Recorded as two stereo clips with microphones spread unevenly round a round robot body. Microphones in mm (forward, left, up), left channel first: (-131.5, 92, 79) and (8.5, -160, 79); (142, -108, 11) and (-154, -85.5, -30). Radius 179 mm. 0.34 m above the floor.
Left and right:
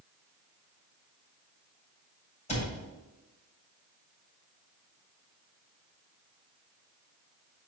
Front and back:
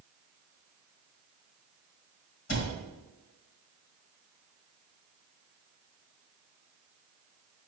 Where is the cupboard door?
50° left, 2.0 m.